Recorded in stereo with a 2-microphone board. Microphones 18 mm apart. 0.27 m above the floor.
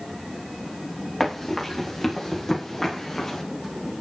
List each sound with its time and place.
1.2 s running footsteps: 10° left (ahead or behind), 10 m; by 3.4 s 20° left (ahead or behind), 9.5 m